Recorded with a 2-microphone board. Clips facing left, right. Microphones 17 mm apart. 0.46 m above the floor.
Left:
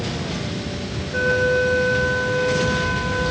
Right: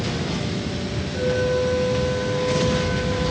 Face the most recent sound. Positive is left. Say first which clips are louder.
# left 4 dB
turn(degrees=65)  # may be behind; listen again after turning